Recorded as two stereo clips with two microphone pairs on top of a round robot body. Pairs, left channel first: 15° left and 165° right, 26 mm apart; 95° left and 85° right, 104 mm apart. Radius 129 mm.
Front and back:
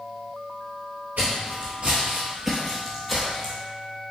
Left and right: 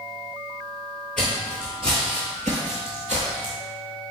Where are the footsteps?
Straight behind, 0.7 m; by 3.5 s 70° right, 1.3 m.